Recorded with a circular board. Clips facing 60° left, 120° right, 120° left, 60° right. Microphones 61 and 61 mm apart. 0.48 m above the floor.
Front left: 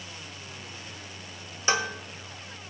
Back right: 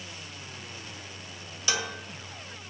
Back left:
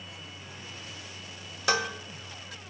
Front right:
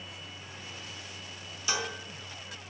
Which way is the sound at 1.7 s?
115° left.